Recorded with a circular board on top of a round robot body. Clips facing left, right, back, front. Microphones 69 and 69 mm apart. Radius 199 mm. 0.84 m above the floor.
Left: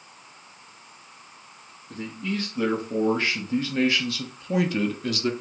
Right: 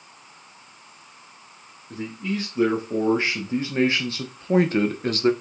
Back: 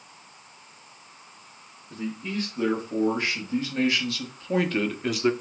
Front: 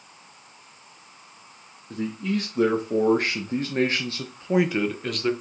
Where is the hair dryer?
No hair dryer in this recording.